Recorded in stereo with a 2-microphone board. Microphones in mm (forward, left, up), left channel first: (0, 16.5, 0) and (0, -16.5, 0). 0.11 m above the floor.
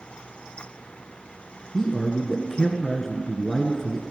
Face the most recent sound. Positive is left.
turn(degrees=10)  # may be behind; listen again after turning